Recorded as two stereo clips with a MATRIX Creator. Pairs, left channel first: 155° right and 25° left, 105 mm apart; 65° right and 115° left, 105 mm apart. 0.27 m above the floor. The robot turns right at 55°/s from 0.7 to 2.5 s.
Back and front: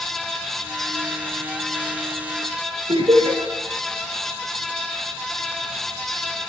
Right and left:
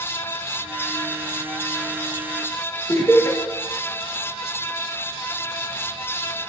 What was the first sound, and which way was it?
Laughter, 5° right.